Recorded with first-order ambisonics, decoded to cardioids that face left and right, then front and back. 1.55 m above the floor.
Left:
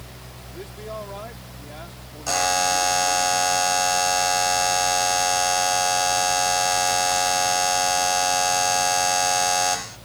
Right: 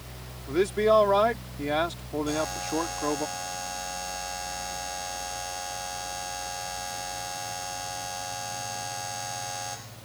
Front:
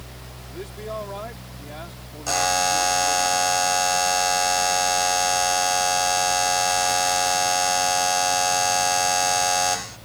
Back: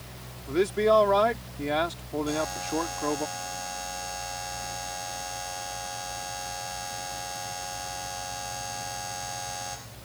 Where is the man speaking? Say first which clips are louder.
Right 15 dB, back 12 dB; 130° right.